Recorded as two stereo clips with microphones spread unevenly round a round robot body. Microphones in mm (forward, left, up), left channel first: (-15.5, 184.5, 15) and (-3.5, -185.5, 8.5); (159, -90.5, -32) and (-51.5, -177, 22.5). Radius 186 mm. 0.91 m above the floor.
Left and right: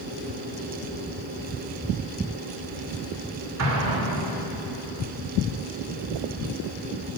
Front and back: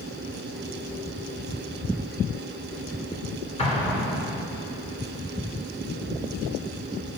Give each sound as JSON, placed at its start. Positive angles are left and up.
{"t": 3.6, "sound": "an explosion", "azimuth_deg": -45, "distance_m": 3.0}